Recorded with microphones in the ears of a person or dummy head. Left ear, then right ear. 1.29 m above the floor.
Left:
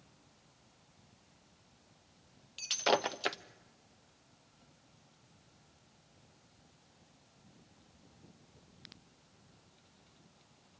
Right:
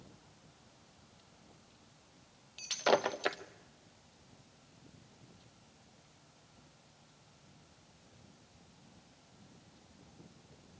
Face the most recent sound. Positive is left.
turn(degrees=5)  # may be behind; listen again after turning